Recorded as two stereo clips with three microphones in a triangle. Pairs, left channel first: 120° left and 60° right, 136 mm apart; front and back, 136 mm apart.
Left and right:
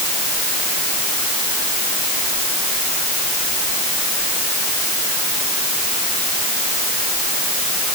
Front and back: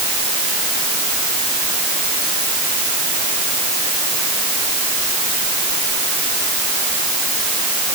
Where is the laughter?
I don't hear laughter.